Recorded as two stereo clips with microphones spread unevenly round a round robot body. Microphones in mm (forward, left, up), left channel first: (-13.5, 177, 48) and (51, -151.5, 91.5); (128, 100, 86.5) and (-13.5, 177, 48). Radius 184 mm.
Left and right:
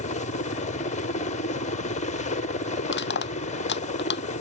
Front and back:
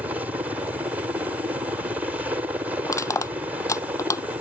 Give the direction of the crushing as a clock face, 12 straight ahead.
11 o'clock.